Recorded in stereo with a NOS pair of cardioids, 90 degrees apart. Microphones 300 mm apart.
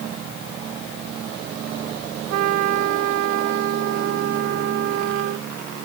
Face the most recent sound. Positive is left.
turn(degrees=-65)